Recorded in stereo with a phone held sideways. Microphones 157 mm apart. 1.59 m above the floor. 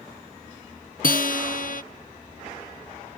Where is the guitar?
65° left (ahead or behind).